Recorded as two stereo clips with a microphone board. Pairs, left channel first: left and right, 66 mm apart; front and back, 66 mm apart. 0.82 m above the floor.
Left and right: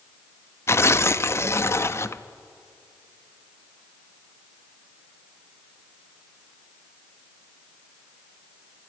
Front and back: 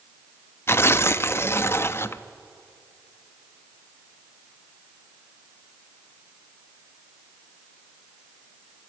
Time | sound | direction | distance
0.7 | tearing paper | 45° left | 0.6 m